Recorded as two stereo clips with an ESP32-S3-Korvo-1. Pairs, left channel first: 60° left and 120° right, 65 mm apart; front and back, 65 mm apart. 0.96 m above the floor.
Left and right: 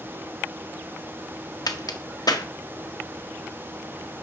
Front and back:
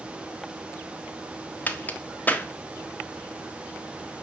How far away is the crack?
About 1.5 m.